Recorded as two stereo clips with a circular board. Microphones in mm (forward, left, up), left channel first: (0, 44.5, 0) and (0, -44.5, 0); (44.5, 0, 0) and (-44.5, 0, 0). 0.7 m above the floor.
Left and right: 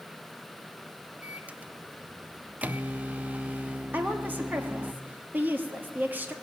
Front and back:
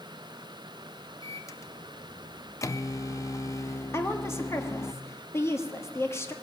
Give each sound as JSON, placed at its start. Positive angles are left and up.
{"t": 1.2, "sound": "a microwave", "azimuth_deg": -25, "distance_m": 0.5}
{"t": 3.9, "sound": "a woman speaking", "azimuth_deg": -35, "distance_m": 1.4}